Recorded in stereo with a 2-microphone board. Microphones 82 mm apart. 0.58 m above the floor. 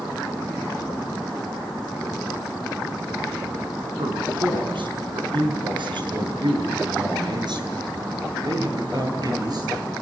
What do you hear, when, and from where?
4.0 s a man speaking: 85° right, 6.5 m; by 9.9 s 55° right (ahead or behind), 11 m